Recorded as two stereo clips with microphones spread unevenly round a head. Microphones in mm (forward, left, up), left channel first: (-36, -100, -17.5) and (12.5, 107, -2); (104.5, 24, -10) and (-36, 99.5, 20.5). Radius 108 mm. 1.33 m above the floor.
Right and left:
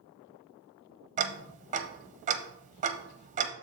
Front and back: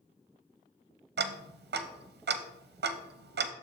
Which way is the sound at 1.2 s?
135° left.